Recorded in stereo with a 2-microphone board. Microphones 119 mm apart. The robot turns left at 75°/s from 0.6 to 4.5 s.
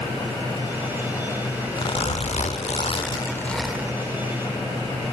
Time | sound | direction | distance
1.8 | a zipper | 140° left | 0.7 m